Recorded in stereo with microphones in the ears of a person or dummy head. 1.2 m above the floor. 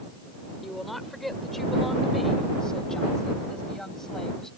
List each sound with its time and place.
0.6 s a woman speaking: 5° right (ahead or behind); by 4.5 s centre (ahead or behind)